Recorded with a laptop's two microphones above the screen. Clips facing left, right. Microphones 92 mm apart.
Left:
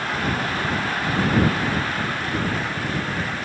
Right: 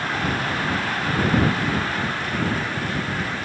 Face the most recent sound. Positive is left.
No sound to turn to.